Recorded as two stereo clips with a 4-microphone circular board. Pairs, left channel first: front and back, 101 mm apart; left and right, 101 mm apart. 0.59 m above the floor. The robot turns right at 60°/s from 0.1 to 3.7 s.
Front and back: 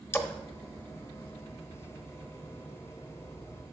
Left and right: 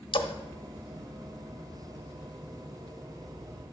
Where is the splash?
65° left, 0.7 m; by 0.3 s 75° left, 0.7 m.